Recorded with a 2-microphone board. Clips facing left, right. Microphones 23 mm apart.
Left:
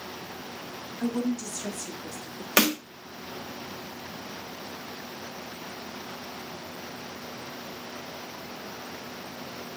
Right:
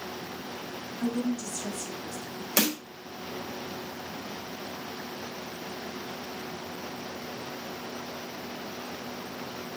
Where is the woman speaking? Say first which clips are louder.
Left 1 dB; 25° left (ahead or behind), 1.2 m; by 2.5 s 45° left (ahead or behind), 1.9 m.